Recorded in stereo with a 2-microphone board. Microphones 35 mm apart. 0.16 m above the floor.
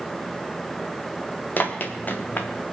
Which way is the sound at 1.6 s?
55° left (ahead or behind).